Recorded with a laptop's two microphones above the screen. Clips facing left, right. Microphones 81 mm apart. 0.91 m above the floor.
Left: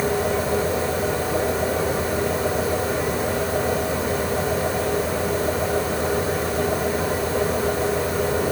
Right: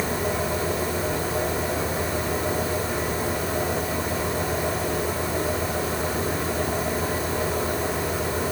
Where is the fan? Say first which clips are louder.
Left 4 dB; 80° left, 7 m.